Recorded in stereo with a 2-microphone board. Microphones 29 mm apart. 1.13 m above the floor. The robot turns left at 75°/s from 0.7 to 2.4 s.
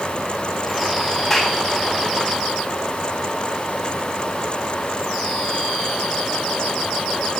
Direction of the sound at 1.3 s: 10° left (ahead or behind).